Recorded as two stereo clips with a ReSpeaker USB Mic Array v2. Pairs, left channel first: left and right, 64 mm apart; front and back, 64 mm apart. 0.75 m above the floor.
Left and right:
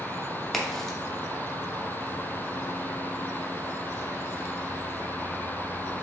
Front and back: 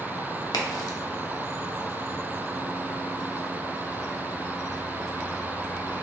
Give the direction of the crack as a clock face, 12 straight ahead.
12 o'clock.